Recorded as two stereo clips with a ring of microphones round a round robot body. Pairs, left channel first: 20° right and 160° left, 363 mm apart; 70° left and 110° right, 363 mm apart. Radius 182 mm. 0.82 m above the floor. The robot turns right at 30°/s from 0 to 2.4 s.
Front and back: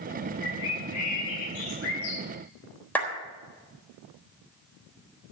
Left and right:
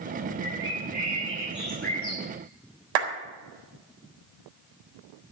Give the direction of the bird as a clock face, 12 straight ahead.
2 o'clock.